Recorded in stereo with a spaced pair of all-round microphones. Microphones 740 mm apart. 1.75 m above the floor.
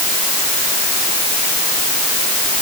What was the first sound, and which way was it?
Only background noise.